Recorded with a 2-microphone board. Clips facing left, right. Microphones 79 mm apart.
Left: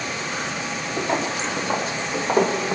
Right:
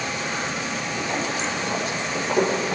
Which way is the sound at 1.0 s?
50° left (ahead or behind).